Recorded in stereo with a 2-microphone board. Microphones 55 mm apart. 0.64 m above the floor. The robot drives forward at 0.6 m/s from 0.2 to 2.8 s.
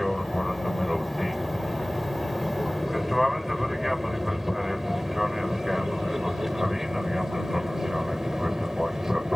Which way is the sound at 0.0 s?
Centre (ahead or behind).